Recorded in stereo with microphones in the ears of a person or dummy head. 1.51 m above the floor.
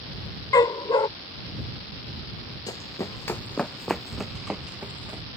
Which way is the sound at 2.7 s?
25° left (ahead or behind).